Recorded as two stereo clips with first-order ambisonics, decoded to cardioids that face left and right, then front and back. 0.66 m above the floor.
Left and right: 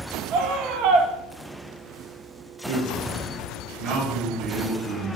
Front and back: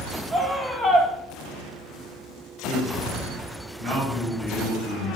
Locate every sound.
0.3 s a scream: 80° right, 1.0 m
2.6 s a man speaking: 105° right, 4 m